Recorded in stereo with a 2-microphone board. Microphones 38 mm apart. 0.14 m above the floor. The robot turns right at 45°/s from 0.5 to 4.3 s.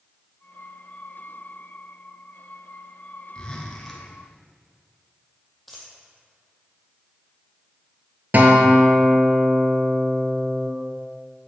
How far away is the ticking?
I don't hear ticking.